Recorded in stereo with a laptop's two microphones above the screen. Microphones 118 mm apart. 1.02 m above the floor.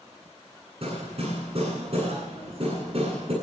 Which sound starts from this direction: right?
Hammering, at 0.8 s.